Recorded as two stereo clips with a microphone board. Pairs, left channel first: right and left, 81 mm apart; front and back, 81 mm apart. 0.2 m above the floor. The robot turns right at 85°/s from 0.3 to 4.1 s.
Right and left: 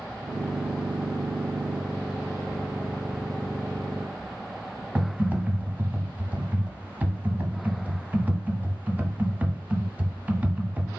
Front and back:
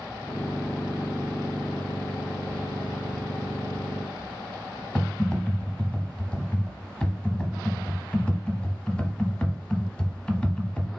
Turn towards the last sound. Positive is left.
turn(degrees=60)